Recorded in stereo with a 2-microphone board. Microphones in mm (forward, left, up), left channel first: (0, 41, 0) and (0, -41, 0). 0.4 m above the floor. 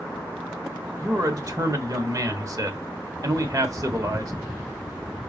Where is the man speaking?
45° right (ahead or behind), 1.1 m.